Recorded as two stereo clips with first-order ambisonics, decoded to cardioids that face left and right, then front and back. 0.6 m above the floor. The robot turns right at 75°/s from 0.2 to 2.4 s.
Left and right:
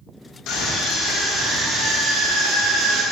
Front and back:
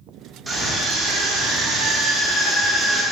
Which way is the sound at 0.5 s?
105° left.